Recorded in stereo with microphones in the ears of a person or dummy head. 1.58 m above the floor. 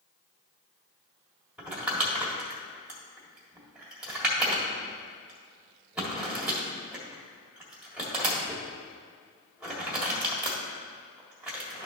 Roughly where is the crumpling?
Centre.